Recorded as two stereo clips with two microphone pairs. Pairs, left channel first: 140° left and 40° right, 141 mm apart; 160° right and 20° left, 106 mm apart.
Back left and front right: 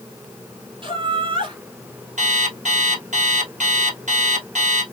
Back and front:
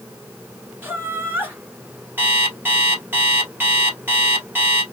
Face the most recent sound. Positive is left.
turn(degrees=-45)